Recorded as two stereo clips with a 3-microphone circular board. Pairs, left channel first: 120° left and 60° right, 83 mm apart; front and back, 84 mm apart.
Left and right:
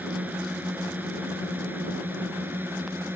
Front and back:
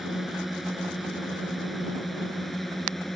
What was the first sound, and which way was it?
A drone, 95° right.